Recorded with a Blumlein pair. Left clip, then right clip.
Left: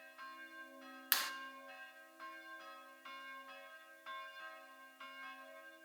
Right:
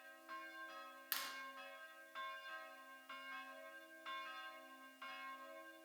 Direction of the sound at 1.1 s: 65° left.